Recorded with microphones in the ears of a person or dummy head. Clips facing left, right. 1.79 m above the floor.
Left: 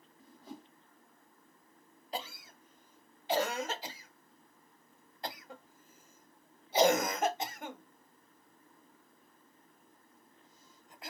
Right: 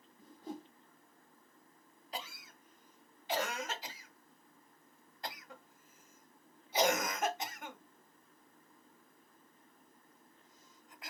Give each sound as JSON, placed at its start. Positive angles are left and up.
{"t": 0.2, "sound": "a whoosh", "side_deg": -35, "distance_m": 1.0}
{"t": 2.1, "sound": "a cough", "side_deg": 35, "distance_m": 0.5}